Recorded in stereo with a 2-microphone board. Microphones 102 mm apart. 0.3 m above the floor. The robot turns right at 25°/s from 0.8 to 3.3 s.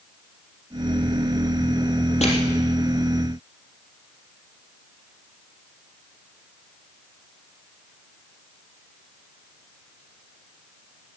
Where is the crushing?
85° left, 3.5 m.